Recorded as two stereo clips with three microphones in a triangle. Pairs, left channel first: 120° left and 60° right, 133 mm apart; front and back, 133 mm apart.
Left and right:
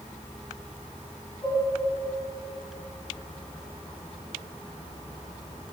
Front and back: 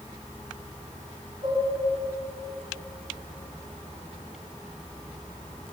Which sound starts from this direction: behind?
Dishes clattering, at 1.4 s.